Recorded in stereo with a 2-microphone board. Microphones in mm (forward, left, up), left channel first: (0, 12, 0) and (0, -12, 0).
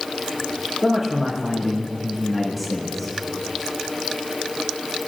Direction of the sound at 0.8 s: 15° right (ahead or behind).